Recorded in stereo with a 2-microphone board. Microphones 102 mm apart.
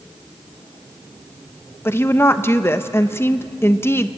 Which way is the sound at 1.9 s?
20° left (ahead or behind).